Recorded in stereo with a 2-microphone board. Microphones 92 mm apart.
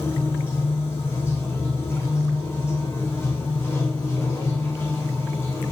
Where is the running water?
25° left (ahead or behind), 4 m.